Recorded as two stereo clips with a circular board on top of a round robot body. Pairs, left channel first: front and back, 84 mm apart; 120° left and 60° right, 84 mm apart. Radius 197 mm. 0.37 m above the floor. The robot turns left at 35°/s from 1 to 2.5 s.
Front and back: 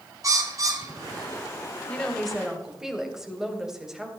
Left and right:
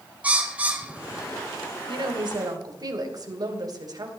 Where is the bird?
130° right, 2 m; by 1.5 s 150° right, 2 m.